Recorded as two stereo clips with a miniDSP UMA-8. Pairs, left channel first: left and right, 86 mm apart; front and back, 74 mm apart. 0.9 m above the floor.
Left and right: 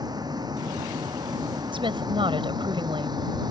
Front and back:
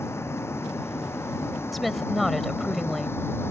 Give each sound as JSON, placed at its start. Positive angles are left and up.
{"t": 0.0, "sound": "a vehicle", "azimuth_deg": -55}
{"t": 1.7, "sound": "a woman speaking", "azimuth_deg": -90}